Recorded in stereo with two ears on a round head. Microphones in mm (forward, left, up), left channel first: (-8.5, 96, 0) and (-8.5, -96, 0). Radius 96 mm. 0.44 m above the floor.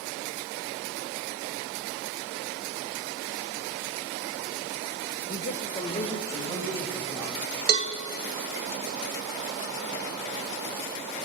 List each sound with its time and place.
5.3 s a man speaking: 50° left (ahead or behind), 1.7 m; by 7.3 s 5° right (ahead or behind), 3.5 m
7.7 s a cowbell: 45° right (ahead or behind), 1.4 m